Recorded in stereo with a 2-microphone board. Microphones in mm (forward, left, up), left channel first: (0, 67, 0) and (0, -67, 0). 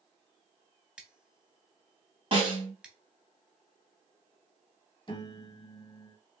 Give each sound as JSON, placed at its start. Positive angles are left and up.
{"t": 1.0, "sound": "scissors", "side_deg": -10, "distance_m": 0.7}
{"t": 2.3, "sound": "a snare drum", "side_deg": -40, "distance_m": 1.6}
{"t": 5.1, "sound": "a piano", "side_deg": 35, "distance_m": 0.7}